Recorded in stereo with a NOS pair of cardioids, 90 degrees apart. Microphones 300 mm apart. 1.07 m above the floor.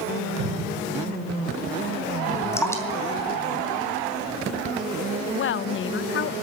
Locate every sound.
0.4 s a cupboard door: 50° right, 6.5 m
2.5 s dripping: 10° left, 3 m
5.3 s a woman speaking: 45° left, 0.5 m